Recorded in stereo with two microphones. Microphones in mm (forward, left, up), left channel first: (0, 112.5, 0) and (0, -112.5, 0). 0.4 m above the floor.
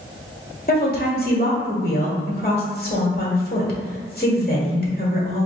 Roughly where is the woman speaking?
Left.